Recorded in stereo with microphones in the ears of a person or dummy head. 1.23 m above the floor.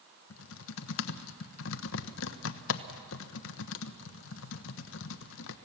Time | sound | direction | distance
0.3 | typing on a keyboard | 75° left (ahead or behind) | 0.9 m